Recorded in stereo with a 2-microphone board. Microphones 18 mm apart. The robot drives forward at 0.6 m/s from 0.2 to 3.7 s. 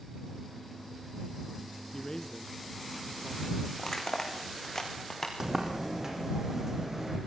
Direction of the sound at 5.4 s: 25° right (ahead or behind).